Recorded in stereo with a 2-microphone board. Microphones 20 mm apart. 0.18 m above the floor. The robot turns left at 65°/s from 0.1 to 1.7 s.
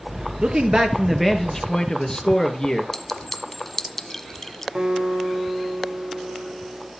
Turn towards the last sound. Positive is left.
turn(degrees=-70)  # may be behind; listen again after turning